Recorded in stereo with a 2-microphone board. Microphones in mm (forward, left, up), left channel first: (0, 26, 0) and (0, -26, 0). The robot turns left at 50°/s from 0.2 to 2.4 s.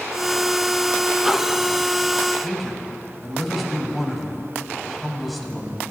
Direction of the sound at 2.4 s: Centre (ahead or behind).